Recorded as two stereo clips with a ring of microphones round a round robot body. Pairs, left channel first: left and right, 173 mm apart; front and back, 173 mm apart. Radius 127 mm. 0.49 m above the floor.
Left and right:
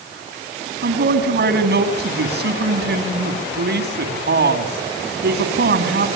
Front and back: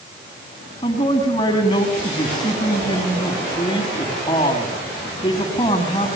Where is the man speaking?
70° right, 5 m.